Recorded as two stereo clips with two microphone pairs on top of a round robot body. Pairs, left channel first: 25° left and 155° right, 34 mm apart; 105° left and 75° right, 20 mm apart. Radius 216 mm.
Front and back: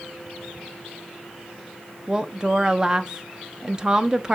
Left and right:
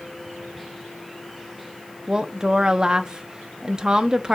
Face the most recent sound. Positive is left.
turn(degrees=-85)